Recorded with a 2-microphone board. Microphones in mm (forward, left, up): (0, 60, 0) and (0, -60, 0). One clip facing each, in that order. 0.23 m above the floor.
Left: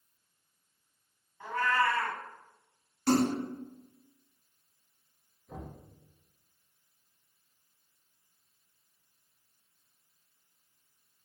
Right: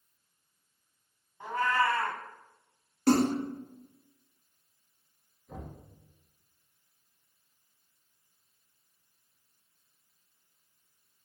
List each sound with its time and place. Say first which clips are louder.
1.4 s a cat meowing: right 1 dB; 25° right (ahead or behind), 0.7 m
3.1 s a splash: right 2 dB; 55° right (ahead or behind), 1.3 m
5.5 s knocking: even; centre (ahead or behind), 1.1 m